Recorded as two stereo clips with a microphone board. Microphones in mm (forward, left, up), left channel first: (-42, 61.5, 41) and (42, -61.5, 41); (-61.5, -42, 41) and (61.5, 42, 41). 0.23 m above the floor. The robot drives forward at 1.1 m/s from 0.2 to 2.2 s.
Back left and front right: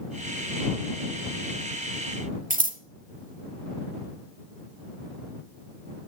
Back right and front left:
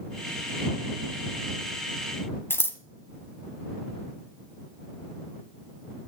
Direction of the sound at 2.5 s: 75° right.